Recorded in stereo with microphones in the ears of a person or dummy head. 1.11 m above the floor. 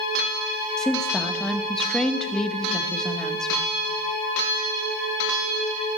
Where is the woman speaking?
5° left (ahead or behind), 0.9 m.